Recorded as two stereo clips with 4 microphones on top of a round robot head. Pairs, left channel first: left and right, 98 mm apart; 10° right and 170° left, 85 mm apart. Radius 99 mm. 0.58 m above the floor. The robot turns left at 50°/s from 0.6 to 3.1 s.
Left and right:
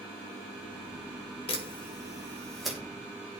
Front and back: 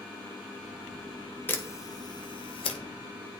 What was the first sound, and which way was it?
A camera shutter, 60° left.